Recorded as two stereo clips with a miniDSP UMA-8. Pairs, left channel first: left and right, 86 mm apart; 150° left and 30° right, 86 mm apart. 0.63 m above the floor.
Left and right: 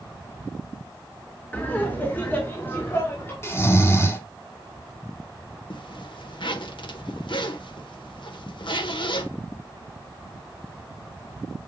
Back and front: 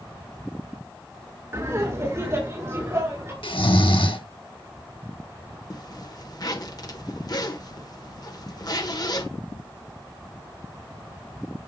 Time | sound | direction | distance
1.5 | laughter | 20° left | 1.8 m
3.4 | snoring | 150° left | 1.8 m
5.7 | a zipper | 110° left | 1.1 m